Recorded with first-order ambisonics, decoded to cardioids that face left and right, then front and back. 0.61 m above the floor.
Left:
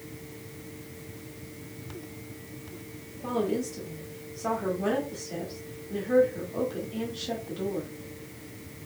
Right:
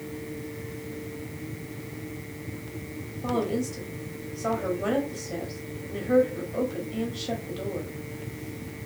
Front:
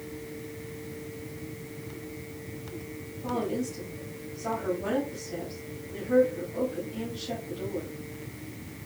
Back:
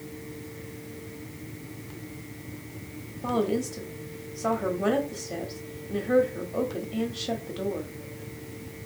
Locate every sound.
3.2 s a woman speaking: 170° right, 1.1 m